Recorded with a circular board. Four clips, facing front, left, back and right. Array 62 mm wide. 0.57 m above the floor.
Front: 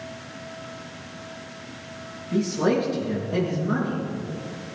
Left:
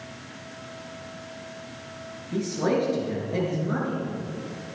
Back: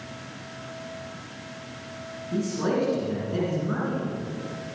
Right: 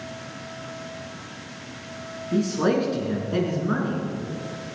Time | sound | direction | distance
2.3 | a man speaking | 80° right | 6 m